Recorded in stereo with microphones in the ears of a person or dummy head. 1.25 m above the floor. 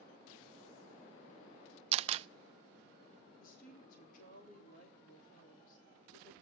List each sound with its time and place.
1.9 s a camera shutter: 40° right (ahead or behind), 0.5 m
3.4 s a woman speaking: 50° left (ahead or behind), 4 m